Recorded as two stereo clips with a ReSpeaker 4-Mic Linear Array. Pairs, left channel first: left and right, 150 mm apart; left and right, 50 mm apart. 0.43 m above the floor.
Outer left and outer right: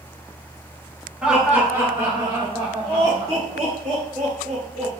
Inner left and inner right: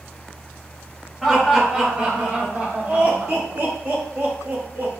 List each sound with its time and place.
1.2 s laughter: 5° right (ahead or behind), 1.3 m; by 4.9 s 60° right (ahead or behind), 2.5 m